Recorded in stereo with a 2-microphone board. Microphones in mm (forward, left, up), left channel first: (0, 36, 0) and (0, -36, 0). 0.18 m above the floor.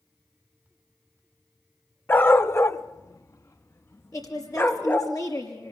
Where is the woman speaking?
50° left (ahead or behind), 5 m.